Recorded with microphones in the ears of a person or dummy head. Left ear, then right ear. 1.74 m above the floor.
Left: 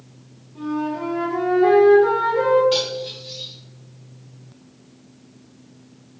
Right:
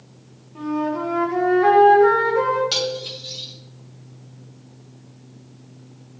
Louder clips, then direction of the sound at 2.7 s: Left 1 dB; 45° right (ahead or behind).